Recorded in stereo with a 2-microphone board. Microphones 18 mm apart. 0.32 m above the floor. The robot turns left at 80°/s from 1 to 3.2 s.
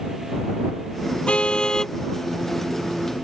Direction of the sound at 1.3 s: 75° left.